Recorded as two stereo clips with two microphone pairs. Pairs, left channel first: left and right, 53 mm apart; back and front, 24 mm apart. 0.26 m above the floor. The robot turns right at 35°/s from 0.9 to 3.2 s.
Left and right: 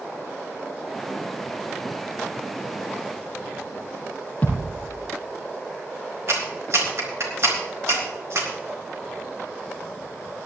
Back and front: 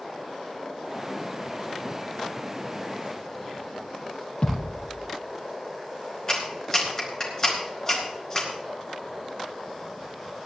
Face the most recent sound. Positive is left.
turn(degrees=-115)